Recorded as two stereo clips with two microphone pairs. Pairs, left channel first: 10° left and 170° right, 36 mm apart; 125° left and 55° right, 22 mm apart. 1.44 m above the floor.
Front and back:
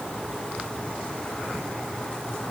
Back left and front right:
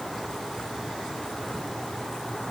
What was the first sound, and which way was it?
Only background noise.